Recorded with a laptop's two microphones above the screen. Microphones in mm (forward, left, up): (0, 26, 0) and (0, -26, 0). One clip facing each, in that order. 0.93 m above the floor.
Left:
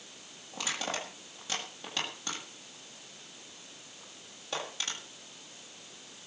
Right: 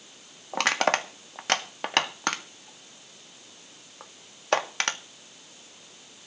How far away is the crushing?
About 1.7 m.